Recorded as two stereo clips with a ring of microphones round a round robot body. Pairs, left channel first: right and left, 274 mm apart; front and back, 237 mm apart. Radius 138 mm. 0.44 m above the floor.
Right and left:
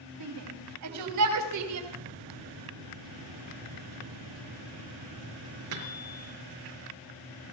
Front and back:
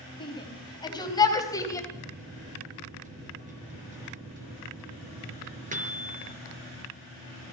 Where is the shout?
70° left, 4 m; by 1.8 s 75° left, 3 m.